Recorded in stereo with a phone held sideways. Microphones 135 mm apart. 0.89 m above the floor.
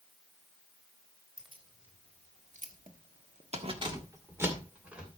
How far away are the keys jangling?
About 3 m.